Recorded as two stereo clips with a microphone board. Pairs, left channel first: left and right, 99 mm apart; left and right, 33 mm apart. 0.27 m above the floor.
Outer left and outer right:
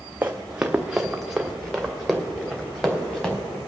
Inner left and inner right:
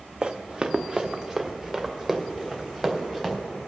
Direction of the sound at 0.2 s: 20° right (ahead or behind).